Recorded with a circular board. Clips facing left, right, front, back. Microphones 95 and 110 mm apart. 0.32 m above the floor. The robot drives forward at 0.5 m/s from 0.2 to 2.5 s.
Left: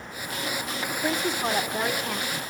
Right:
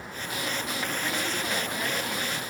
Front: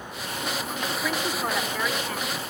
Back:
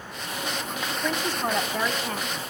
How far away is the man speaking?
About 2.5 m.